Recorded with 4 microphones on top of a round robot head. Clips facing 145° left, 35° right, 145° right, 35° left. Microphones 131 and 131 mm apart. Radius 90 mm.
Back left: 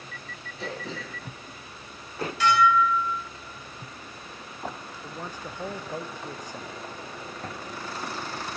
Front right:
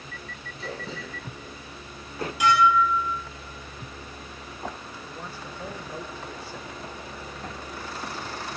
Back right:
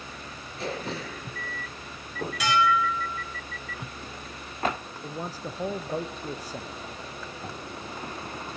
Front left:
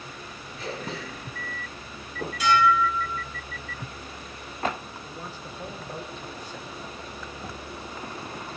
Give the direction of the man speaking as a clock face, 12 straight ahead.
5 o'clock.